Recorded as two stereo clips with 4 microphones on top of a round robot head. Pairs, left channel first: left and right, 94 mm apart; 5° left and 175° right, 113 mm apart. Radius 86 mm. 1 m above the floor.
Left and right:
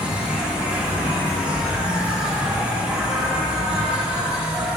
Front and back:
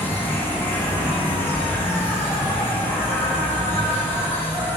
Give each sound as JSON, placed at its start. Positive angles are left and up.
{"t": 0.0, "sound": "an insect", "azimuth_deg": -35, "distance_m": 1.2}